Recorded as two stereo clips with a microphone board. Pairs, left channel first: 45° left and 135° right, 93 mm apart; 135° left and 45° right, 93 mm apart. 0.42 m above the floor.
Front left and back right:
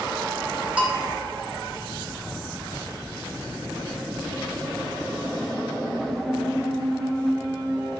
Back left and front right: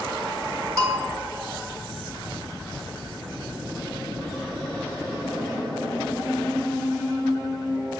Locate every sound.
0.8 s a bell: 70° right, 1.1 m